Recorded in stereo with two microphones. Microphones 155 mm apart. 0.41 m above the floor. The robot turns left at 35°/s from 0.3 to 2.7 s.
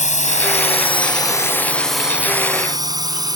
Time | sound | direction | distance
0.0 | a drone | 50° left (ahead or behind) | ?